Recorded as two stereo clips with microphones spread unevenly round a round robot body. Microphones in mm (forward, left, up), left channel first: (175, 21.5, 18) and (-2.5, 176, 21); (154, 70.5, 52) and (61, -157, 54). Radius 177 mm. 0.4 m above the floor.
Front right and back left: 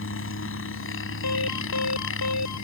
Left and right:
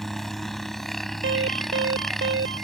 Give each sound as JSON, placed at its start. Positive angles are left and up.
{"t": 0.0, "sound": "a helicopter", "azimuth_deg": -20}
{"t": 1.2, "sound": "an alarm", "azimuth_deg": -75}